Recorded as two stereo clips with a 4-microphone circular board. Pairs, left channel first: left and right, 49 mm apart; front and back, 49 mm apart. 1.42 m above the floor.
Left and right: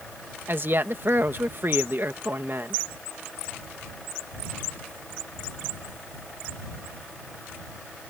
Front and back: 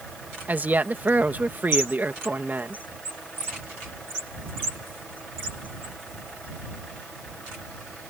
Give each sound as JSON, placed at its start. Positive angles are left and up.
{"t": 0.5, "sound": "a woman speaking", "azimuth_deg": -130}